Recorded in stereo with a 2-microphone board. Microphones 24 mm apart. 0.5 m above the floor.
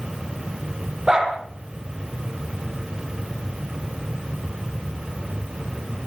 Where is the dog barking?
25° right (ahead or behind), 7.5 m.